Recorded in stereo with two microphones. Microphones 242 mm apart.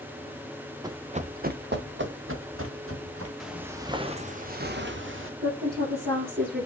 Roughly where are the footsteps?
Centre.